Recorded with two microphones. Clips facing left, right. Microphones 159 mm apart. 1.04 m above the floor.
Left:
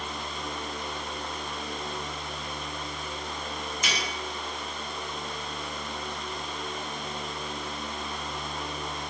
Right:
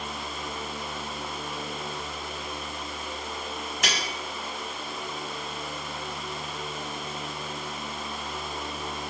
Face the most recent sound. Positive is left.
turn(degrees=-80)